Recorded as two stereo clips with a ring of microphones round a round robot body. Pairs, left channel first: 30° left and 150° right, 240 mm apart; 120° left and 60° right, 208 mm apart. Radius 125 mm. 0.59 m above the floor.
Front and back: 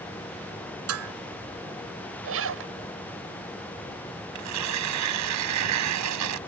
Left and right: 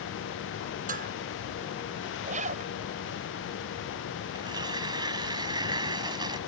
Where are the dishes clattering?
120° right.